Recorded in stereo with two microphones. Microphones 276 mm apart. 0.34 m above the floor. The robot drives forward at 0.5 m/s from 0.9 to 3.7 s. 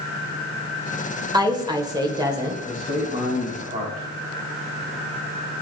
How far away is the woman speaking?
About 0.8 m.